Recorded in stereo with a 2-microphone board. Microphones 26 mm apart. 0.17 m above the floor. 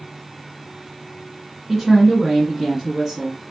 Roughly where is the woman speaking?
Centre.